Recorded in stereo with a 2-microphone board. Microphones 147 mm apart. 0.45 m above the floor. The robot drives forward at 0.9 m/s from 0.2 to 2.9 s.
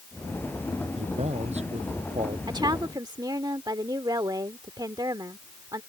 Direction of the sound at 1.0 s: 45° right (ahead or behind).